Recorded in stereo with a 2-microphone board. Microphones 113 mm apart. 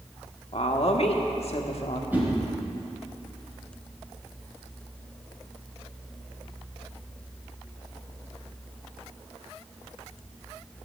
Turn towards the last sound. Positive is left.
turn(degrees=-15)  # may be behind; listen again after turning